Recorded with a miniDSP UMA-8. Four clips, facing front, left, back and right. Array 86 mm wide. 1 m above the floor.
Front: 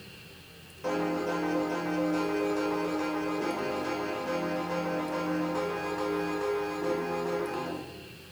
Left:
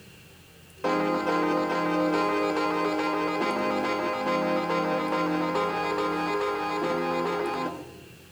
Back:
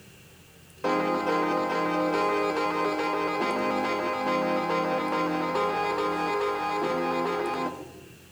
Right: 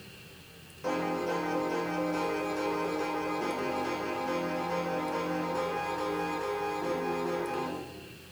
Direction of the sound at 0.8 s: 130° left.